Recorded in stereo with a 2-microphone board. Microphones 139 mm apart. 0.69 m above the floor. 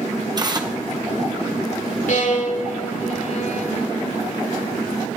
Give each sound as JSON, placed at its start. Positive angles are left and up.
{"t": 0.4, "sound": "tearing paper", "side_deg": -30, "distance_m": 1.7}
{"t": 2.1, "sound": "a violin", "side_deg": 65, "distance_m": 2.5}